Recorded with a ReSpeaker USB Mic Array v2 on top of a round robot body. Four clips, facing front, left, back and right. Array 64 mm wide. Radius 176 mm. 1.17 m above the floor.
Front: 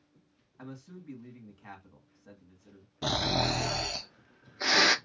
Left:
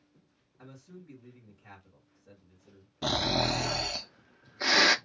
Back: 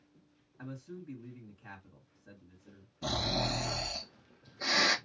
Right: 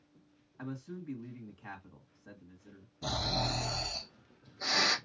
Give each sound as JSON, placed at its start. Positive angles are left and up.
{"t": 0.6, "sound": "a man speaking", "azimuth_deg": -60, "distance_m": 2.0}
{"t": 3.0, "sound": "snoring", "azimuth_deg": 55, "distance_m": 0.8}